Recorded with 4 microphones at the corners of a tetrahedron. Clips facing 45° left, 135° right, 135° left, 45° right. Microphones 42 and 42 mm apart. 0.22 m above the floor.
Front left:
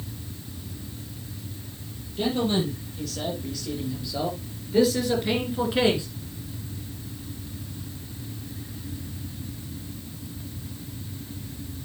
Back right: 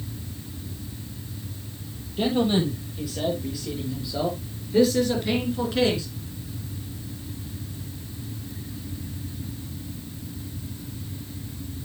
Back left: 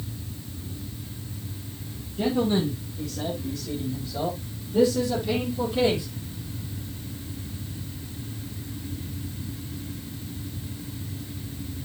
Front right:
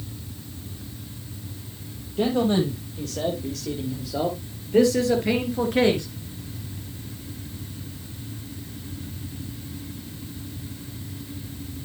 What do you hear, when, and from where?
2.2 s a man speaking: 65° right, 7.5 m; by 6.1 s 20° right, 3 m